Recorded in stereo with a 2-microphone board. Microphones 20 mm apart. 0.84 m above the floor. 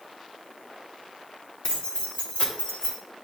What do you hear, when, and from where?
1.6 s keys jangling: 55° left (ahead or behind), 1.7 m; by 3.0 s 85° left, 1.5 m